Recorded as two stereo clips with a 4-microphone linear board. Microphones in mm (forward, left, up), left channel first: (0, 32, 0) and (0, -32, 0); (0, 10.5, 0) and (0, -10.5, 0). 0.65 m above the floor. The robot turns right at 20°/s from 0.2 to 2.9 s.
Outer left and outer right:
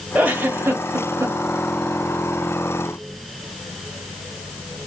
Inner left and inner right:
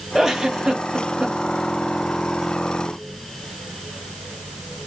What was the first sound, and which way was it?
A giggle, 25° right (ahead or behind).